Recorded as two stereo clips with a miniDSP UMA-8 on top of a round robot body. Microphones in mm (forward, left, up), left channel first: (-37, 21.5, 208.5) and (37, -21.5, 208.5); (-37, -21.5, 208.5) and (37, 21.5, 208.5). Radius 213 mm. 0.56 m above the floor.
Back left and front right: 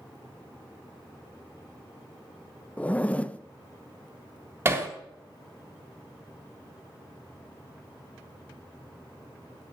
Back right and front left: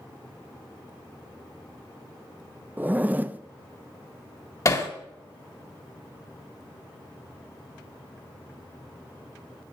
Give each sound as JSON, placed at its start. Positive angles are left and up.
{"t": 2.8, "sound": "a zipper", "azimuth_deg": 85, "distance_m": 0.8}
{"t": 4.7, "sound": "hammering", "azimuth_deg": -95, "distance_m": 1.6}